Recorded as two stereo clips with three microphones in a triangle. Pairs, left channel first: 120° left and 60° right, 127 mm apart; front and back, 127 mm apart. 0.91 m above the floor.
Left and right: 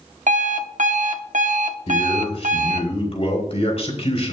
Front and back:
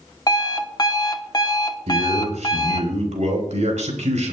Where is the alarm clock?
55° right, 0.9 m.